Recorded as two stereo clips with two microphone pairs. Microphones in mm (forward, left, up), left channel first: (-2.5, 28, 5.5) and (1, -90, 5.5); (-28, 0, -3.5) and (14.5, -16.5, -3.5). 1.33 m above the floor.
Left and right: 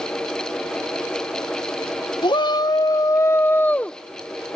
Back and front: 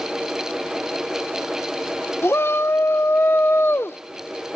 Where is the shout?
140° left; by 4.0 s straight behind.